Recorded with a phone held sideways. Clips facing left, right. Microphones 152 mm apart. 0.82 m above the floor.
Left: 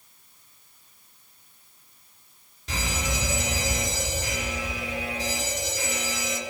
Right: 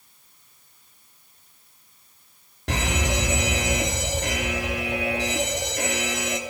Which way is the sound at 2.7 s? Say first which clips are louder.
Right 5 dB; 65° right (ahead or behind).